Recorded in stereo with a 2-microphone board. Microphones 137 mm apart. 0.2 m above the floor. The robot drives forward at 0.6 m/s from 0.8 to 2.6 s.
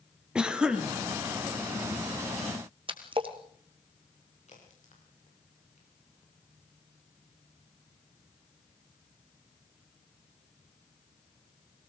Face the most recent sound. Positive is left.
turn(degrees=60)  # may be behind; listen again after turning